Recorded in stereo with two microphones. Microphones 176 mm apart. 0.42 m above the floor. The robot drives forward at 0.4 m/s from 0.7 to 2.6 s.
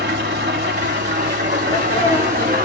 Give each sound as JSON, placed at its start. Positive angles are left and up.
{"t": 0.0, "sound": "an engine running", "side_deg": -75, "distance_m": 1.4}
{"t": 1.6, "sound": "a sneeze", "side_deg": 50, "distance_m": 2.5}